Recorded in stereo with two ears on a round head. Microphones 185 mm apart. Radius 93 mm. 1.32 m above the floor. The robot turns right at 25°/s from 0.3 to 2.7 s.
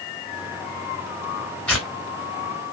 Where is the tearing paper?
5° left (ahead or behind), 3.5 m; by 1.9 s centre (ahead or behind), 3.5 m.